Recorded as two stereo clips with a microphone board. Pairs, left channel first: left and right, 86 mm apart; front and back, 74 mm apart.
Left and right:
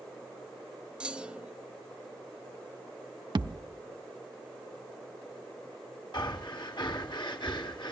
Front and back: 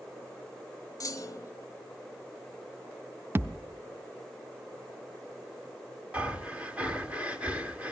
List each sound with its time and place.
1.0 s a clunk: 15° right, 0.6 m
3.4 s a thud: 120° right, 0.5 m
6.1 s breathing: 110° left, 1.5 m